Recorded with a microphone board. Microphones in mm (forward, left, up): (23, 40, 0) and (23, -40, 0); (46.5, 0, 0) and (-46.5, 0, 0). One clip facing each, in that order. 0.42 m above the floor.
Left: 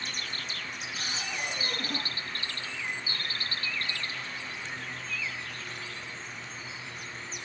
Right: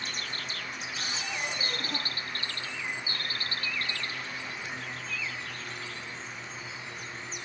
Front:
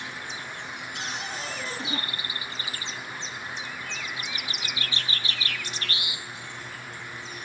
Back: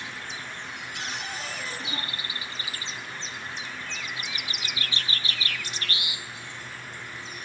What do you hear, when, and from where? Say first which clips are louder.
0.9 s a cupboard door: even, front 1 dB; 55° left, 8.5 m